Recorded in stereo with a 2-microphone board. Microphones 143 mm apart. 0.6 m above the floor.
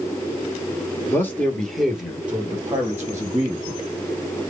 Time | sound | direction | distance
1.1 | a man speaking | 20° left (ahead or behind) | 1.1 m